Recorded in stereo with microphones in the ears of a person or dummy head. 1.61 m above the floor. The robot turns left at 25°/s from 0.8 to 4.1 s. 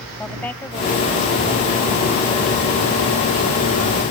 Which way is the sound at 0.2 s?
10° left.